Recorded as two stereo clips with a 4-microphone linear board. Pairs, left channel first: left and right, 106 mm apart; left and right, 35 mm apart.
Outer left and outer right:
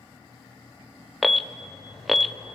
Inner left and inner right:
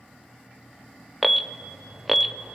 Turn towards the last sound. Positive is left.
turn(degrees=0)  # may be behind; listen again after turning